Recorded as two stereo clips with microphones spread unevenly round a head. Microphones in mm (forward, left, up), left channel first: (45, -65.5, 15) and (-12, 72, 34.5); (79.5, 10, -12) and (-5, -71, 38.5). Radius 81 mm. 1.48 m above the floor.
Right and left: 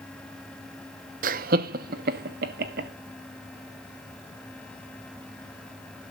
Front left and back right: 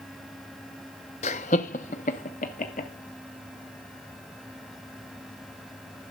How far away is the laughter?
About 0.6 m.